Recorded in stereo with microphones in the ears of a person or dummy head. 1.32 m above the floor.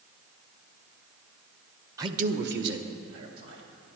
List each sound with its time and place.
2.0 s a man speaking: 15° right (ahead or behind), 0.5 m; by 3.6 s 80° right, 2.5 m